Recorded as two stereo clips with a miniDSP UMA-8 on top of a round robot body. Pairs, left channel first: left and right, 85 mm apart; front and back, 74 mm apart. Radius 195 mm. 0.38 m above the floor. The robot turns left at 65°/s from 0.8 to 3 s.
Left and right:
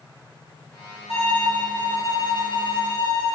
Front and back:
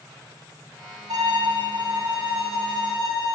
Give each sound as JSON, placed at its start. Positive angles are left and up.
{"t": 1.1, "sound": "a violin", "azimuth_deg": -145, "distance_m": 1.8}